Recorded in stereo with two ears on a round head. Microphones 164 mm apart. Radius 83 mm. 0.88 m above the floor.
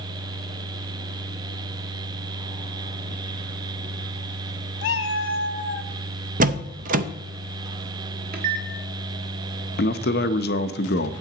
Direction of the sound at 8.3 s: 55° right (ahead or behind).